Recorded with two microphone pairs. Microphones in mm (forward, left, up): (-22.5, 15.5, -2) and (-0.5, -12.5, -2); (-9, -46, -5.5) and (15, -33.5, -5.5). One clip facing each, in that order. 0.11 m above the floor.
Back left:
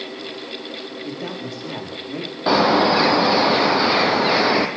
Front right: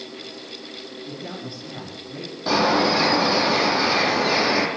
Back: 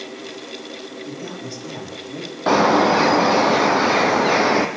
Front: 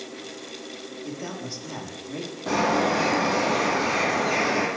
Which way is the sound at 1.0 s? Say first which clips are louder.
Back left 4 dB, even; 105° left.